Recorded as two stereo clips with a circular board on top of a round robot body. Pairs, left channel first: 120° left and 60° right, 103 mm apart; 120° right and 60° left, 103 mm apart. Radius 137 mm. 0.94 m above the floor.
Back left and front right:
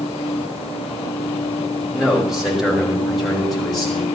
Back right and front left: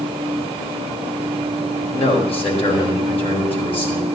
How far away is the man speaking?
About 6 m.